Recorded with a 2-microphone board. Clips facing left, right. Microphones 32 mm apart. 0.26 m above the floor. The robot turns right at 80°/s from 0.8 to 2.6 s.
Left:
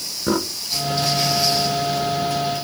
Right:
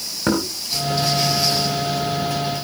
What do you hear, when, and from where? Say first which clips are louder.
0.3 s knocking: right 1 dB; 45° right (ahead or behind), 3.5 m